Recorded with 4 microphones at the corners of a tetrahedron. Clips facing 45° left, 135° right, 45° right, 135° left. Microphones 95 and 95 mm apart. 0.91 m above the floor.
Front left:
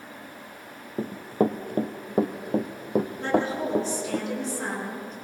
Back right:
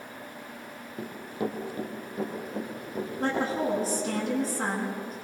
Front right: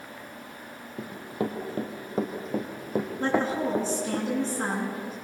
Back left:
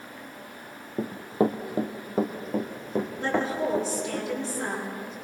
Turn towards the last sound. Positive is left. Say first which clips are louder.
# back right 3 dB, front right 2 dB
turn(degrees=-85)